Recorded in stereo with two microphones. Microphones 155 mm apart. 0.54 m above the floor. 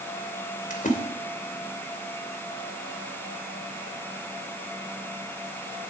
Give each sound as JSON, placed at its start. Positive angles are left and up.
{"t": 0.7, "sound": "a splash", "side_deg": 60, "distance_m": 2.5}